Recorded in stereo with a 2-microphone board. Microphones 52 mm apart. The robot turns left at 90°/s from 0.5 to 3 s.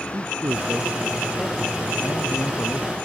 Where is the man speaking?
115° right; by 3.0 s 25° left.